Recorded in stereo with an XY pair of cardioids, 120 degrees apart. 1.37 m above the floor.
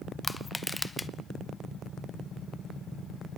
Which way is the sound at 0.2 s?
10° left.